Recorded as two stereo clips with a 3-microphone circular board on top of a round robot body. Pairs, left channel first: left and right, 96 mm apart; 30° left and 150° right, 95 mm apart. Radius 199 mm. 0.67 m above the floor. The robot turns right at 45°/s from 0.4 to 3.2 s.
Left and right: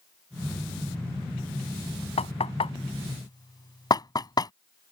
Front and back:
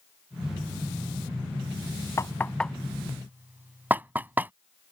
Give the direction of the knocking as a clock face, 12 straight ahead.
9 o'clock.